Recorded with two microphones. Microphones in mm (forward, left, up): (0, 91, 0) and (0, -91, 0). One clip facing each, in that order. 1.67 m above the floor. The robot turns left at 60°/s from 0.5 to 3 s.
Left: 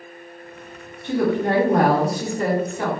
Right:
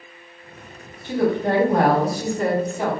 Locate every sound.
1.0 s a woman speaking: 90° left, 1.3 m; by 2.9 s 20° right, 1.3 m